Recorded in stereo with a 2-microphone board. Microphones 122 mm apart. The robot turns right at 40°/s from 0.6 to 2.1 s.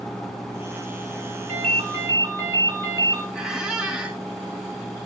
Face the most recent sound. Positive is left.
turn(degrees=-5)  # may be behind; listen again after turning